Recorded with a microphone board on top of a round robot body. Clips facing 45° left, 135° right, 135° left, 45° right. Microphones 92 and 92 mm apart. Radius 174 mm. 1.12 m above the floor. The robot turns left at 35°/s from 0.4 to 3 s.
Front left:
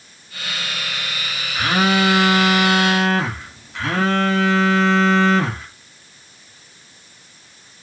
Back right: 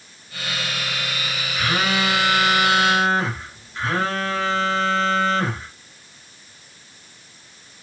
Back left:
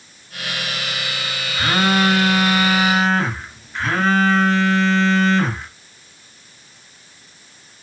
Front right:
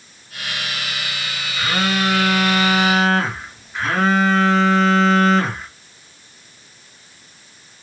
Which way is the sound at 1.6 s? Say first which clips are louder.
Front left 5 dB, back left 3 dB; 90° left.